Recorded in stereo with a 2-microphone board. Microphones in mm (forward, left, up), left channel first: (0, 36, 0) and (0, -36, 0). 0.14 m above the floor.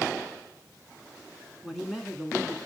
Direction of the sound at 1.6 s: 5° right (ahead or behind).